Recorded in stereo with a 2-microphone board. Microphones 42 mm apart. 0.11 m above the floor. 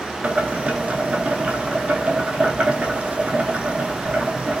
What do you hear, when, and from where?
0.2 s boiling: 35° right (ahead or behind), 0.9 m